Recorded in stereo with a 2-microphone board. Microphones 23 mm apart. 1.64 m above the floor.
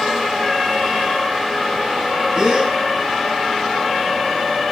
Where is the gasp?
40° right (ahead or behind), 9.5 m.